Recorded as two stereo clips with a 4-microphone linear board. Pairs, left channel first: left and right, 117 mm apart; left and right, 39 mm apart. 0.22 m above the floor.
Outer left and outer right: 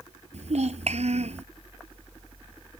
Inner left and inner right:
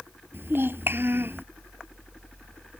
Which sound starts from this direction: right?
A child speaking, at 0.3 s.